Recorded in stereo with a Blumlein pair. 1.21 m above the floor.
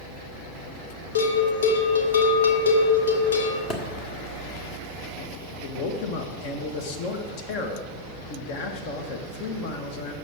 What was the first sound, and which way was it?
A bell, 65° left.